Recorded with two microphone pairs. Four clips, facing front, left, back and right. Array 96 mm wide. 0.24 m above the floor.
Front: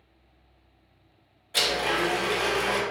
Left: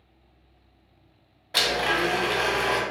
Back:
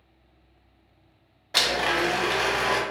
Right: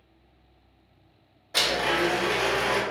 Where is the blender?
160° left, 0.7 m.